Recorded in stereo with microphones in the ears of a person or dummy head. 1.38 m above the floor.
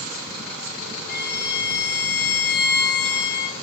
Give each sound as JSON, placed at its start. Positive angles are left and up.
{"t": 1.1, "sound": "a violin", "side_deg": 45, "distance_m": 1.2}